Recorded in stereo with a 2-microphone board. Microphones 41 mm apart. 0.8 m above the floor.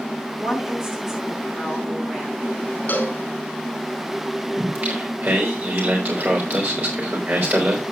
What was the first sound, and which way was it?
A woman speaking, 15° right (ahead or behind).